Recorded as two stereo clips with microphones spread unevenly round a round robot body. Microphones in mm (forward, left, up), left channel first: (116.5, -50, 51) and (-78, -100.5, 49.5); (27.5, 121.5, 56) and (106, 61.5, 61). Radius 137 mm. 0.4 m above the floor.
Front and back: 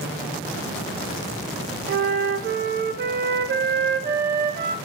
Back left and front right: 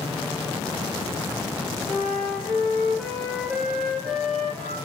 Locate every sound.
1.9 s a flute: 125° right, 0.6 m